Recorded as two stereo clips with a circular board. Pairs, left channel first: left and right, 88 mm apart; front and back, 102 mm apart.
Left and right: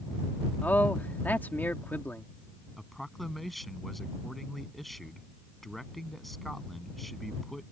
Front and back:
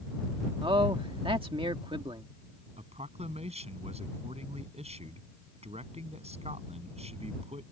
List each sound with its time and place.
0.6 s a man speaking: 155° left
2.8 s a man speaking: straight behind